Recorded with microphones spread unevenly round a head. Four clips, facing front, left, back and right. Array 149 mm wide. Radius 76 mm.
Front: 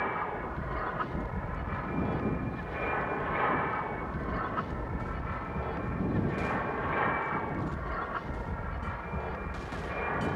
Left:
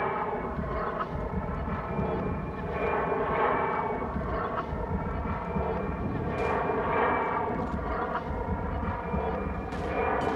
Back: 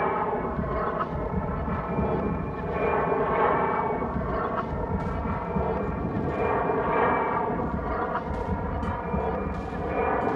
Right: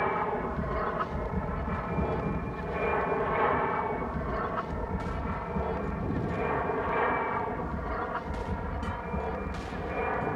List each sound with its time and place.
0.0 s an aircraft: 175° right; by 10.4 s 165° left